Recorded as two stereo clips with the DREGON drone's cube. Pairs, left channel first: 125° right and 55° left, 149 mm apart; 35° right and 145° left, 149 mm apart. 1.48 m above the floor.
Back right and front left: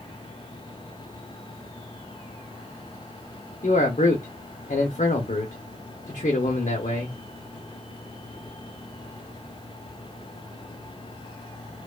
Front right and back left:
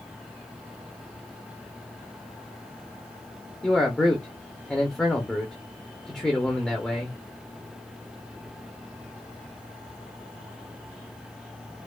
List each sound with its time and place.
3.6 s a man speaking: 120° right, 0.7 m